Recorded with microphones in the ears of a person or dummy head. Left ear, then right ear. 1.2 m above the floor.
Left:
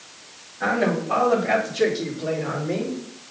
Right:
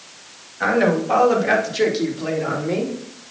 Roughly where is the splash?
No splash in this recording.